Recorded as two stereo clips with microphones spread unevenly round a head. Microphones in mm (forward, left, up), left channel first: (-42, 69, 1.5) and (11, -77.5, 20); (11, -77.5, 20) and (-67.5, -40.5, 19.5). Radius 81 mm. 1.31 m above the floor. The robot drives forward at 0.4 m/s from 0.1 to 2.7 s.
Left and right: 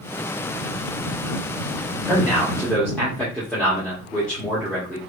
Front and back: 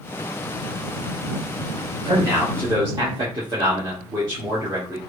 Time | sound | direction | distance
2.0 | a man speaking | 165° right | 1.5 m